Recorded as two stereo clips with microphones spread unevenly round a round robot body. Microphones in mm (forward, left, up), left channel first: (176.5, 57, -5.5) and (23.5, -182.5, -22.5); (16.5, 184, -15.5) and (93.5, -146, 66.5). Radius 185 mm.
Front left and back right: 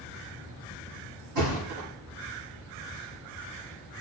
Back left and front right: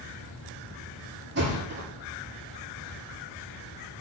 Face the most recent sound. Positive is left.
turn(degrees=-140)